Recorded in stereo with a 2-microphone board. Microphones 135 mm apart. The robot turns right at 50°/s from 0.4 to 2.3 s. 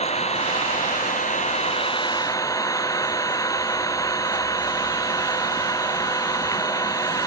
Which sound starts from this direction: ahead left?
An engine running, at 0.0 s.